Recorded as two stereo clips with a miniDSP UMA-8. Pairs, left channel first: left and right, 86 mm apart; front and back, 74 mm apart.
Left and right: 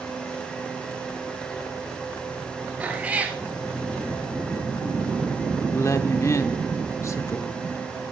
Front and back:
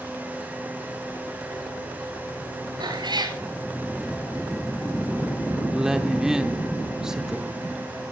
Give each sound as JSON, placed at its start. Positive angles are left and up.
{"t": 2.8, "sound": "a cat meowing", "azimuth_deg": -165, "distance_m": 1.7}
{"t": 5.7, "sound": "a woman speaking", "azimuth_deg": 105, "distance_m": 0.8}